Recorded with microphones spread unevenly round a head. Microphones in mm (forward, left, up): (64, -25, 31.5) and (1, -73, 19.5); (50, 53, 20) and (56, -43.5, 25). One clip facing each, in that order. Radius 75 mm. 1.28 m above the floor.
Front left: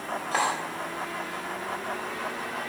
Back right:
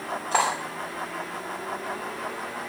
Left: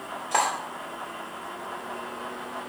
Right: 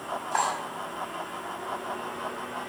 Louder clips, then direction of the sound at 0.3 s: Back right 3 dB, left 2 dB; 140° left.